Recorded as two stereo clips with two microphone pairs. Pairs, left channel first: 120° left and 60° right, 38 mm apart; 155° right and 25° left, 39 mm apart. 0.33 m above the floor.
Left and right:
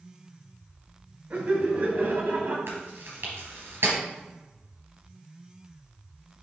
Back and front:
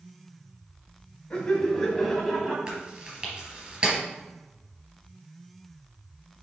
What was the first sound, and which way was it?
Laughter, 90° right.